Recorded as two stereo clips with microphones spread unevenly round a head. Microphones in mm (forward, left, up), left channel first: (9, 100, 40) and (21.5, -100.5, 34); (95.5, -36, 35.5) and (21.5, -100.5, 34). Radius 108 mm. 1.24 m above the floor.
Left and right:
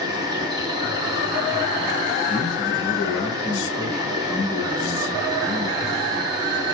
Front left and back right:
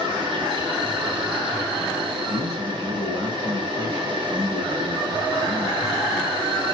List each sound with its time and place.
0.0 s an insect: 150° right, 1.3 m
2.3 s a man speaking: straight behind, 1.9 m